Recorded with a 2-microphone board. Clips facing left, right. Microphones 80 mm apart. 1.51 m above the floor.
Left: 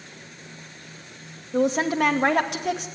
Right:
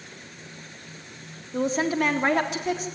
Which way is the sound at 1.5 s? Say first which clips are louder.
Left 3 dB; 60° left (ahead or behind).